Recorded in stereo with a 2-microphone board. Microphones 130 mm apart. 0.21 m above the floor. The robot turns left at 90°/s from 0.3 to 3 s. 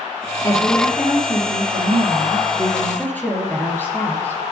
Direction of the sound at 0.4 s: 35° left.